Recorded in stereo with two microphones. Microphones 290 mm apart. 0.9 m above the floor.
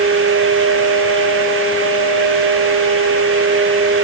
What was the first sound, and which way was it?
Only background noise.